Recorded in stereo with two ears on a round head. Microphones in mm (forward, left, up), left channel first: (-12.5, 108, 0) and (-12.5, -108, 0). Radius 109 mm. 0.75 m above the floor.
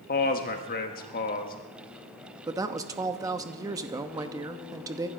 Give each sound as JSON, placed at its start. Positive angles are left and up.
{"t": 0.1, "sound": "a man speaking", "side_deg": 40, "distance_m": 1.3}
{"t": 2.5, "sound": "a woman speaking", "side_deg": -15, "distance_m": 0.9}